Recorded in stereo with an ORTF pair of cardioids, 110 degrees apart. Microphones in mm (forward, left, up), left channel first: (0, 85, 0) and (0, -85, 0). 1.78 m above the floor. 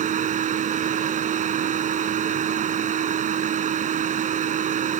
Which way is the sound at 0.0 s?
50° right.